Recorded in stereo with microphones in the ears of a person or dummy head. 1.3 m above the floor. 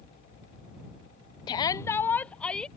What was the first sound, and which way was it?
A shout, 25° left (ahead or behind).